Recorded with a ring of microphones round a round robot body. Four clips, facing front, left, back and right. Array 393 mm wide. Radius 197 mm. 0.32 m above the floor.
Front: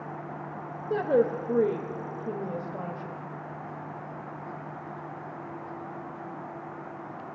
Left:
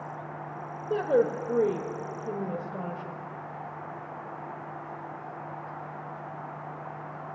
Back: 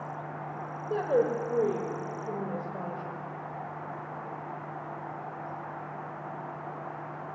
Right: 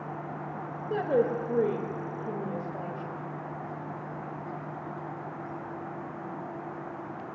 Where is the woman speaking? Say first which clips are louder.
Left 2 dB, front 2 dB; 35° left, 1.6 m.